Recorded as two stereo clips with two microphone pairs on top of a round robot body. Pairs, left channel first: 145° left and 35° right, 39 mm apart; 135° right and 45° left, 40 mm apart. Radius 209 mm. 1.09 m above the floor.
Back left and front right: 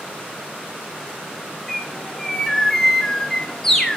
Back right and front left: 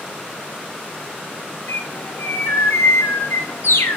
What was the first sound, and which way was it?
A bird, 135° right.